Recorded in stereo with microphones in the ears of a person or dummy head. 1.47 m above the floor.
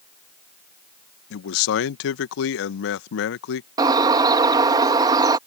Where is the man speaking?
65° left (ahead or behind).